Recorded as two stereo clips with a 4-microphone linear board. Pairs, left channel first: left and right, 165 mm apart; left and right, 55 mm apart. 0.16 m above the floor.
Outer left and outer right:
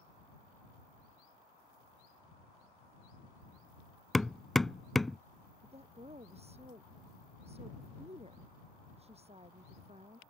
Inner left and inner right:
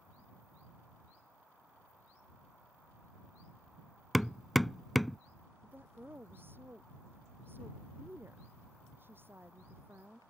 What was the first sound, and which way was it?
Hammering, centre (ahead or behind).